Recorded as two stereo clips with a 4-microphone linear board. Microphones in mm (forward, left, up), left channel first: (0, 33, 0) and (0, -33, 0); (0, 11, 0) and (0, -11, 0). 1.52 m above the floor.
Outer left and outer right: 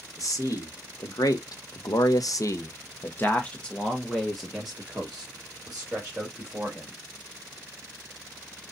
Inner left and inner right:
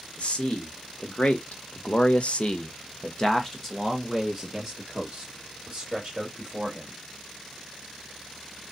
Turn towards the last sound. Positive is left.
turn(degrees=-15)  # may be behind; listen again after turning